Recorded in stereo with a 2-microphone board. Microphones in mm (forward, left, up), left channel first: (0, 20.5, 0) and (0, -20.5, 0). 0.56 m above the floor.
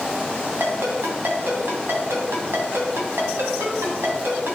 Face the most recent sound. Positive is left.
turn(degrees=-80)